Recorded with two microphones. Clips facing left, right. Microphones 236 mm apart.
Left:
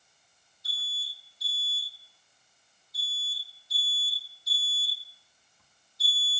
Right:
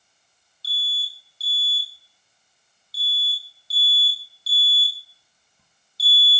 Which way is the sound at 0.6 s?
35° right (ahead or behind).